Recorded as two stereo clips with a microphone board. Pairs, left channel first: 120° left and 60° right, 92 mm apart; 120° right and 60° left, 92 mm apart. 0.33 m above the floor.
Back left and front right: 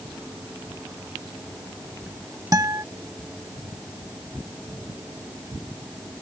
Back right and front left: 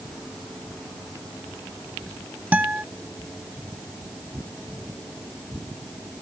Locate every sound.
2.5 s a guitar: 15° right